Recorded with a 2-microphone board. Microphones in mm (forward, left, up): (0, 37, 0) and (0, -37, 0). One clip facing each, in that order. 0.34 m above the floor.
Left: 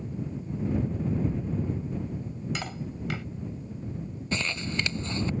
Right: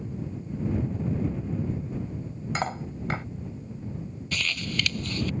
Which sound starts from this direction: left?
Crumpling, at 4.3 s.